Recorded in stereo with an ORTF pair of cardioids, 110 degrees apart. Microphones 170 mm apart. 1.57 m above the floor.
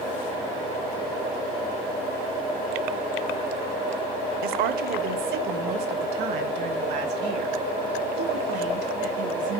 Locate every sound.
4.4 s a woman speaking: 65° right, 0.9 m; by 9.6 s 80° right, 3.5 m